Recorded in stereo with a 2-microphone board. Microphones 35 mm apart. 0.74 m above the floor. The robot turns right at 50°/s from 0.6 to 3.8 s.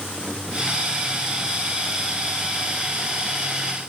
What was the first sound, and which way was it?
Only background noise.